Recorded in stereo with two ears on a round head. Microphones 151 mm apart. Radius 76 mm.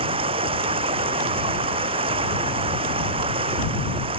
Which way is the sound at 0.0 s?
35° right (ahead or behind).